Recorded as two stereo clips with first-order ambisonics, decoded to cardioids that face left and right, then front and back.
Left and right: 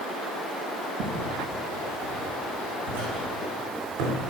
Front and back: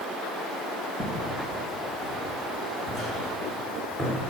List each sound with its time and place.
1.0 s footsteps: 65° right, 5 m; by 4.2 s 80° right, 6.5 m